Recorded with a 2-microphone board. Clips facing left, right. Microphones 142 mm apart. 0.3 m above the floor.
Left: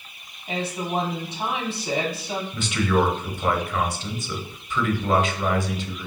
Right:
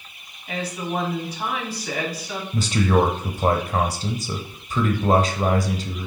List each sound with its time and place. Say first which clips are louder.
0.5 s a woman speaking: even; 25° left (ahead or behind), 2 m
2.5 s a man speaking: right 3 dB; 35° right (ahead or behind), 1.0 m